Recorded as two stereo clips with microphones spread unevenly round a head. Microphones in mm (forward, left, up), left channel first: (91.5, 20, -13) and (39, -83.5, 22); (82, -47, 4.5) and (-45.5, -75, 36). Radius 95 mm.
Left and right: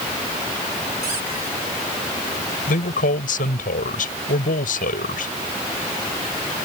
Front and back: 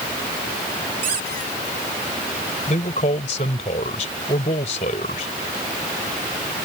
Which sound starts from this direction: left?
A man speaking, at 2.7 s.